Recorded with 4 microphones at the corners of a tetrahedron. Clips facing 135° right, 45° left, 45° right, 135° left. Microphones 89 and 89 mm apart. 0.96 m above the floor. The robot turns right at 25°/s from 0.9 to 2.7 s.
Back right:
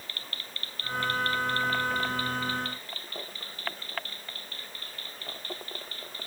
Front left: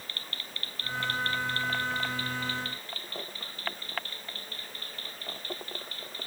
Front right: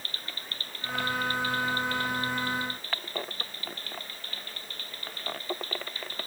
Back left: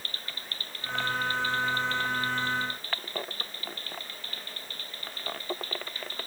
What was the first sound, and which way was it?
Only background noise.